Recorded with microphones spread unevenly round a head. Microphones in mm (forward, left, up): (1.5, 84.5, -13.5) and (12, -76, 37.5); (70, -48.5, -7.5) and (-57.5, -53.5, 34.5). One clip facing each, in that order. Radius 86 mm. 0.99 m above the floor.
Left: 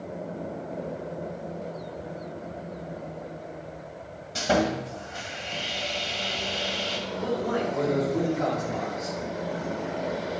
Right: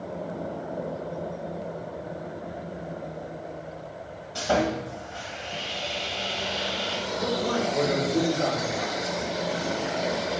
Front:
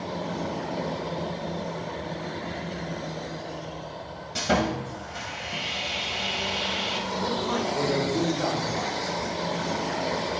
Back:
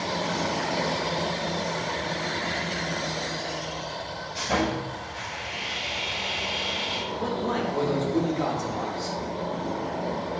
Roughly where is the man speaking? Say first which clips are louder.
Right 1 dB, back 1 dB; behind.